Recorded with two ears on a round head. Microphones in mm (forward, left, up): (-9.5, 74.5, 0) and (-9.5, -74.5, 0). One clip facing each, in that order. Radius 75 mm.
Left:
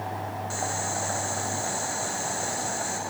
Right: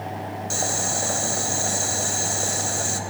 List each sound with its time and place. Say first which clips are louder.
0.5 s boiling: right 3 dB; 45° right (ahead or behind), 1.8 m